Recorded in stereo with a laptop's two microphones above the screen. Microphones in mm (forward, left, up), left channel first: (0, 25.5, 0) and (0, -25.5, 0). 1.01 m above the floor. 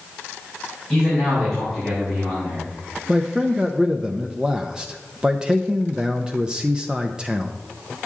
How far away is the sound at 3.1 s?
About 0.6 m.